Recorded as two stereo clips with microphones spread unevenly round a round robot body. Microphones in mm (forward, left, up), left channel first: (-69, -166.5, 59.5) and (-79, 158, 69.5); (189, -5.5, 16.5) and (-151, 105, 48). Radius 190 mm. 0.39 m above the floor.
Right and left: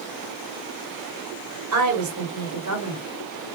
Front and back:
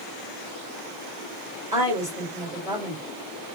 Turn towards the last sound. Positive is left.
turn(degrees=90)